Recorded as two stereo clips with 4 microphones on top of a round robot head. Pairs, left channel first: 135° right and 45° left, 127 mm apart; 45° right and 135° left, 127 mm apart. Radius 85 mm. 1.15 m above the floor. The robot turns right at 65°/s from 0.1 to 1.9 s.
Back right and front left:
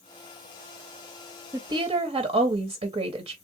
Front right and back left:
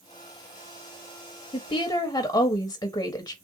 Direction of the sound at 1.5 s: 15° right.